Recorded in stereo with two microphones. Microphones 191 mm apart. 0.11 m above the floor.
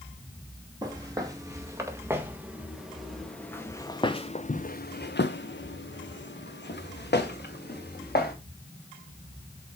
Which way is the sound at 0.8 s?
20° right (ahead or behind).